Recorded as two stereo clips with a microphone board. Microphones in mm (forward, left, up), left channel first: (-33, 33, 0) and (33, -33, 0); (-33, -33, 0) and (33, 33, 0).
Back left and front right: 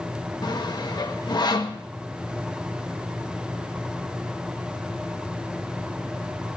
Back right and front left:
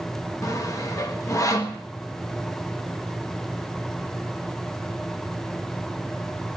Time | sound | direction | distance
0.4 | sawing | 170° left | 1.1 m